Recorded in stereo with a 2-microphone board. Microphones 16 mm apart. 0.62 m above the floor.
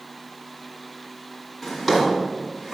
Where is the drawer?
Centre (ahead or behind), 1.8 m.